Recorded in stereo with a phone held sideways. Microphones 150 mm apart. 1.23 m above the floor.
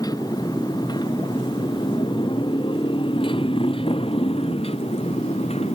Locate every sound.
0.0 s a motorcycle: 25° left (ahead or behind); by 5.8 s 45° left (ahead or behind)